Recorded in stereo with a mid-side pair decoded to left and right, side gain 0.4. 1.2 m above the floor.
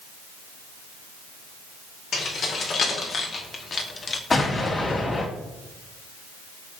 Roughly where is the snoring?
I don't hear snoring.